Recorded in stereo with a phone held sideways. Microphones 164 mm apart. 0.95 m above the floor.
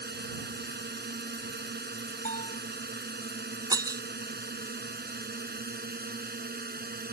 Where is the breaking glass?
25° right (ahead or behind).